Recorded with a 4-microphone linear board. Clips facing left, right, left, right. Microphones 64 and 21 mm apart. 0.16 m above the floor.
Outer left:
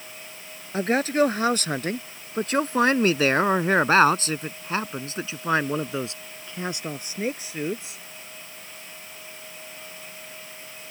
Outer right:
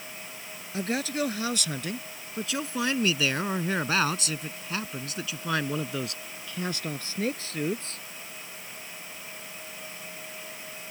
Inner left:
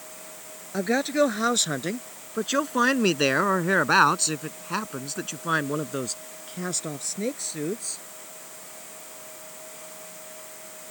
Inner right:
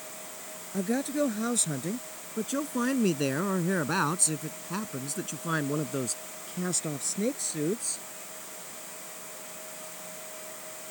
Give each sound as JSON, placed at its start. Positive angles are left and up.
{"t": 0.7, "sound": "a man speaking", "side_deg": 40}